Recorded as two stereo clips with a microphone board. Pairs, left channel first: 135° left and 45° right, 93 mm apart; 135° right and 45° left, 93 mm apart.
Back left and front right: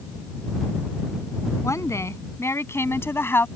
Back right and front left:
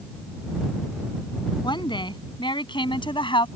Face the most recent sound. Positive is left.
turn(degrees=-160)